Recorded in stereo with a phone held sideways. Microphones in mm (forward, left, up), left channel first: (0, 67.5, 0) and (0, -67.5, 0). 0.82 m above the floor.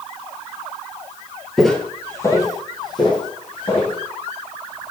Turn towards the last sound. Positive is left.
turn(degrees=35)  # may be behind; listen again after turning